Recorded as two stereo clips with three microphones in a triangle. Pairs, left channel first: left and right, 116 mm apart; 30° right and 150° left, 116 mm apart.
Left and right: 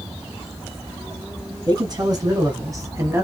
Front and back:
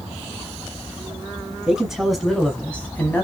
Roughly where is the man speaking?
Behind right.